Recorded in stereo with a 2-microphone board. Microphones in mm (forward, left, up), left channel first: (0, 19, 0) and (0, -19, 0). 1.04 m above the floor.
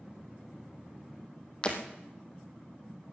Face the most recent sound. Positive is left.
turn(degrees=25)  # may be behind; listen again after turning